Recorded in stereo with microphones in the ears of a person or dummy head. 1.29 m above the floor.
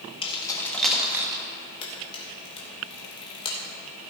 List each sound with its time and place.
0.2 s keys jangling: 35° left (ahead or behind), 1.8 m; by 1.4 s 20° right (ahead or behind), 1.7 m
1.8 s a camera shutter: 30° left (ahead or behind), 2.5 m